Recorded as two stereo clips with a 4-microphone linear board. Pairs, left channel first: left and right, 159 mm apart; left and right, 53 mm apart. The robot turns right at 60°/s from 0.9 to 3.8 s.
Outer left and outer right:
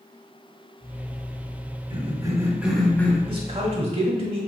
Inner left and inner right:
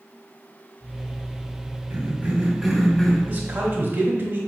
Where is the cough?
50° right, 1.4 m; by 3.2 s 25° left, 1.4 m.